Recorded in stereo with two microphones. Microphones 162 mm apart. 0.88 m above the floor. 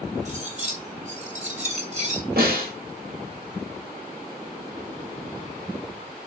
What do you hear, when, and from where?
0.2 s cutlery clinking: 45° right (ahead or behind), 1.9 m
2.4 s a snare drum: 80° right, 4.5 m